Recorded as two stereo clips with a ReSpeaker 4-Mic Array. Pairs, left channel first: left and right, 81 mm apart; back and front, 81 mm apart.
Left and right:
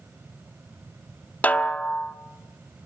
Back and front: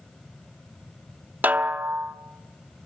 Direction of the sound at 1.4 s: 40° left.